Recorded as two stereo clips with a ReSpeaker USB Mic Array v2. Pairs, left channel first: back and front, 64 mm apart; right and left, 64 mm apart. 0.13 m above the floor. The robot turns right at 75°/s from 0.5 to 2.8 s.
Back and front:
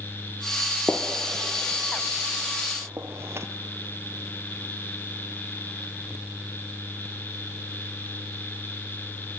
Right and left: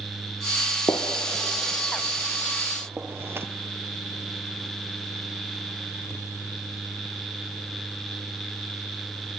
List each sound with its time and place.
0.9 s a gunshot: 100° right, 1.4 m; by 3.5 s 45° left, 1.4 m